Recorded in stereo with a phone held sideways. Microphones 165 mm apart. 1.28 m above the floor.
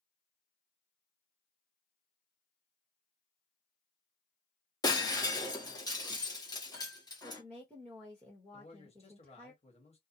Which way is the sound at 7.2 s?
5° left (ahead or behind).